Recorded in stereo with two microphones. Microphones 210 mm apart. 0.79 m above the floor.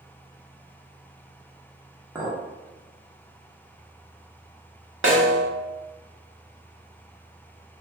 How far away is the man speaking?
No man speaking in this recording.